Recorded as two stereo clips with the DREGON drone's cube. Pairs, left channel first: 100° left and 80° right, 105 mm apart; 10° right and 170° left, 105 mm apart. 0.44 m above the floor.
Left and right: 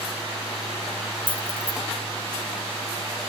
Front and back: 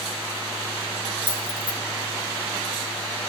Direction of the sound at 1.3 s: 25° left.